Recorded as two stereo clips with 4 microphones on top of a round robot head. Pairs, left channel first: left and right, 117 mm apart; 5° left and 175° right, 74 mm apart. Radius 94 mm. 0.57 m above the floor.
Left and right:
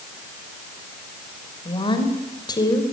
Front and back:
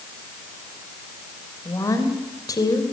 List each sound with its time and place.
1.6 s a woman speaking: 45° left, 3.5 m; by 2.8 s 35° left, 3.5 m